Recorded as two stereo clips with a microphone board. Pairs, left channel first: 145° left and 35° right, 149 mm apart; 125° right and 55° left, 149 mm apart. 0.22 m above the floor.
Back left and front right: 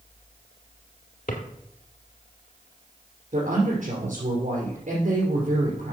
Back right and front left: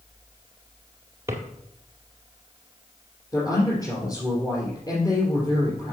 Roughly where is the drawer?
Behind left.